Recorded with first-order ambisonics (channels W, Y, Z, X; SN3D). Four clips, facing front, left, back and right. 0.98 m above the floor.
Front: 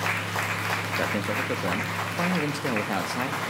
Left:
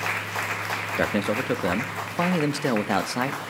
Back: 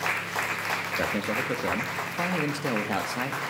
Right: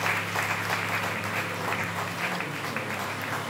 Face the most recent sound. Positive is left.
turn(degrees=85)